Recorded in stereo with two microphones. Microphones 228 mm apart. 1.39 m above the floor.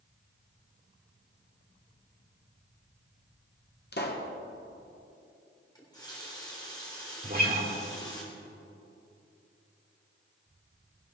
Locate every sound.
3.9 s a pop: 45° left (ahead or behind), 1.3 m
5.8 s a running tap: 15° left (ahead or behind), 3.5 m
7.2 s a guitar: 40° right (ahead or behind), 2 m